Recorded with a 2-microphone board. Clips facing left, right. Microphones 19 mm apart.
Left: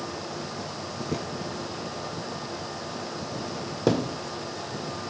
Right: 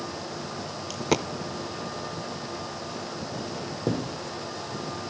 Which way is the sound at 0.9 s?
75° right (ahead or behind).